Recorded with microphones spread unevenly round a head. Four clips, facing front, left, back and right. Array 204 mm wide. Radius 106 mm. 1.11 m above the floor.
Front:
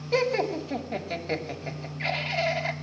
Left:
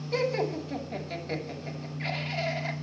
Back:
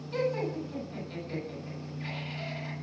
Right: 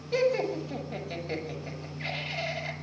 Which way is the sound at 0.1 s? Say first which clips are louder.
Right 2 dB, front 5 dB; straight ahead.